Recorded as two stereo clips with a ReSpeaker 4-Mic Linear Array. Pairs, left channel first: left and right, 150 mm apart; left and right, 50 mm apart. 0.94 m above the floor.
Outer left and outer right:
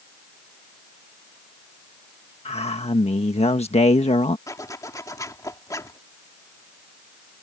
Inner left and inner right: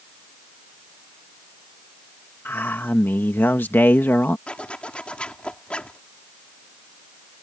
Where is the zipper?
20° left (ahead or behind).